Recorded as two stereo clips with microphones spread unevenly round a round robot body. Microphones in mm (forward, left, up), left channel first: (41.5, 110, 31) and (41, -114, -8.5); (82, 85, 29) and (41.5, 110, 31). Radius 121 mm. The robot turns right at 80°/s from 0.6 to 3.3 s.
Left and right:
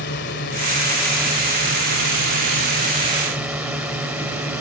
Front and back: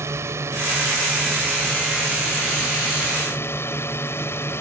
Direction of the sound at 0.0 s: 140° left.